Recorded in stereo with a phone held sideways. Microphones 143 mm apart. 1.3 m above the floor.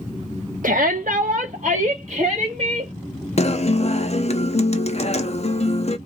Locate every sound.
0.6 s a shout: 75° right (ahead or behind), 0.7 m; by 2.9 s 40° right (ahead or behind), 1.9 m
3.4 s a guitar: 50° left (ahead or behind), 0.5 m